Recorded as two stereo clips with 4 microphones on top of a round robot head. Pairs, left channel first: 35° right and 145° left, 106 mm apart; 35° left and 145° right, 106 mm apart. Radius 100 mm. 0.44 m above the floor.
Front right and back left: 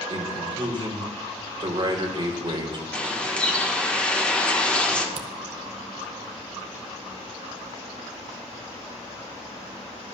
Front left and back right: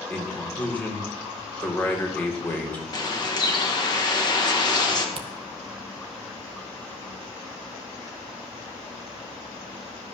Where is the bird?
35° left, 1.7 m.